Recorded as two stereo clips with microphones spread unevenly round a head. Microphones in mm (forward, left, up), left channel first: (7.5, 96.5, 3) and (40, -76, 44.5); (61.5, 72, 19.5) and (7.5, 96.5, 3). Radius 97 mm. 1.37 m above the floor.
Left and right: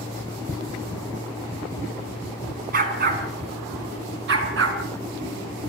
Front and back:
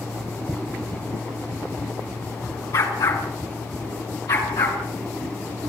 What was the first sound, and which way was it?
A dog barking, 45° right.